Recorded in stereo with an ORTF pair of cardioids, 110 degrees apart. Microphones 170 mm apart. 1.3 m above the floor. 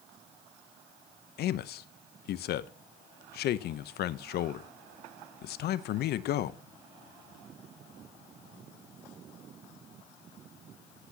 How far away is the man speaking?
About 0.8 m.